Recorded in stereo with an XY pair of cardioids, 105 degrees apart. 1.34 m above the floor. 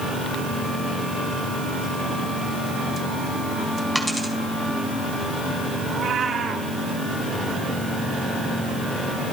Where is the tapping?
No tapping in this recording.